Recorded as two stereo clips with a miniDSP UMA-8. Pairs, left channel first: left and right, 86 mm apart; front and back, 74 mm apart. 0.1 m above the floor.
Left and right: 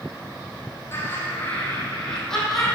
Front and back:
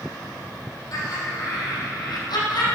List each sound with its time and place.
0.9 s laughter: 30° left, 3 m; by 2.7 s straight ahead, 4 m